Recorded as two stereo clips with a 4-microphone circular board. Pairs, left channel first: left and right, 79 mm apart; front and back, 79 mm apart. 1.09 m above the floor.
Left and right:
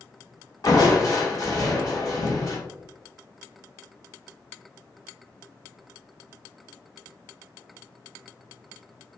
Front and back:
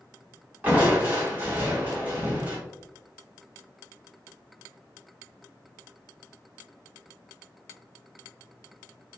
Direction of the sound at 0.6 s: 120° left.